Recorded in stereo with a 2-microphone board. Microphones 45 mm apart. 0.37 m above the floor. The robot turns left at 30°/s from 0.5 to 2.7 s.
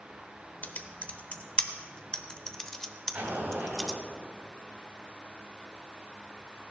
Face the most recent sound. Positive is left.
turn(degrees=-45)  # may be behind; listen again after turning